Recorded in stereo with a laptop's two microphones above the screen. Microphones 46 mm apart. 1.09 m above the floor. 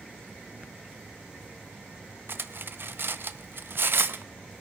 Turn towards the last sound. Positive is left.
turn(degrees=-55)  # may be behind; listen again after turning